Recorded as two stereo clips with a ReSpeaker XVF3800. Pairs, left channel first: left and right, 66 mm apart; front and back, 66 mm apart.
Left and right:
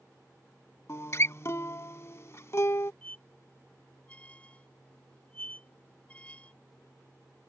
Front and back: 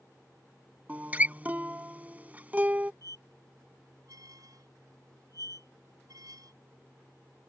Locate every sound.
0.9 s a guitar: 120° left
3.0 s a squeak: 160° left